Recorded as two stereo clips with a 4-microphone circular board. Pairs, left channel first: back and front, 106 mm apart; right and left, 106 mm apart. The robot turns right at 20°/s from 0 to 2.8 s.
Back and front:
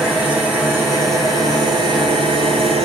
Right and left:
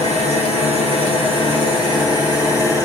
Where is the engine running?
85° right, 5 m; by 2.9 s 30° right, 5 m.